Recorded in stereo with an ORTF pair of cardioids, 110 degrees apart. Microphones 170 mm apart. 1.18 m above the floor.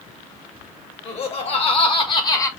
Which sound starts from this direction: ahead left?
Laughter, at 1.1 s.